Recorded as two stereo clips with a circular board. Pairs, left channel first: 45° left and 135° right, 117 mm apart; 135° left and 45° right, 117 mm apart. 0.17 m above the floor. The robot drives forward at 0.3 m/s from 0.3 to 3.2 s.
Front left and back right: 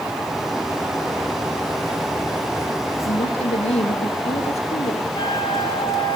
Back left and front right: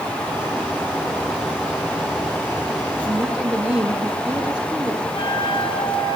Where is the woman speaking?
35° left, 3 m.